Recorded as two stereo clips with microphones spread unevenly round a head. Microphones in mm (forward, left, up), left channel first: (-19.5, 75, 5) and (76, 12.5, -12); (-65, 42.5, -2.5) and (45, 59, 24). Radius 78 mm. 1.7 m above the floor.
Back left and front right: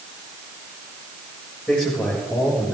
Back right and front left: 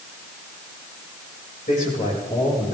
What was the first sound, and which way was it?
A man speaking, 130° right.